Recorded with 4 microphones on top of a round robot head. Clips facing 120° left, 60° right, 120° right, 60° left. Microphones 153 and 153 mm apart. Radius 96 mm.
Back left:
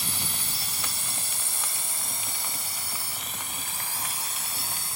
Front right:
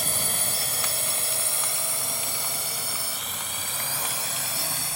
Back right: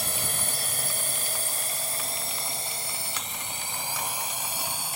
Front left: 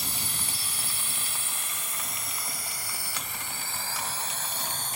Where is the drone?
95° right; by 5.0 s 40° right.